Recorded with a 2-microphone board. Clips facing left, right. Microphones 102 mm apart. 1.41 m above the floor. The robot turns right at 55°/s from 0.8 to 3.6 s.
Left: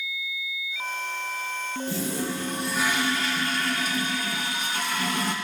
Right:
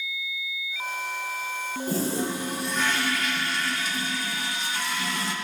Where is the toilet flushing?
45° right, 1.4 m; by 5.3 s 50° left, 1.4 m.